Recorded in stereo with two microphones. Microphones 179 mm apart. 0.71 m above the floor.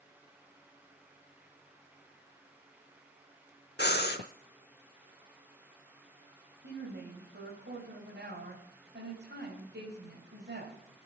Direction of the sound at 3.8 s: 70° left (ahead or behind).